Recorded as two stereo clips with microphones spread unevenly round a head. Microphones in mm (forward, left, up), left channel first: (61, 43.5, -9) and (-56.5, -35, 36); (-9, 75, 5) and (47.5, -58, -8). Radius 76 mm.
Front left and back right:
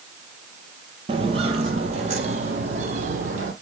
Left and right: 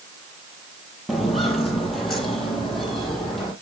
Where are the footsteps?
160° right, 2 m.